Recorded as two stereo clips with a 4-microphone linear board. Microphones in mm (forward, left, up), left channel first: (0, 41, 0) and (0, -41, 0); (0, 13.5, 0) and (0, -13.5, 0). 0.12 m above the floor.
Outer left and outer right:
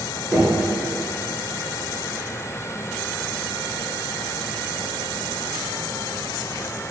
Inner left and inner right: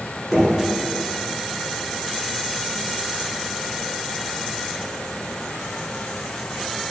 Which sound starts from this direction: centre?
Knocking, at 0.3 s.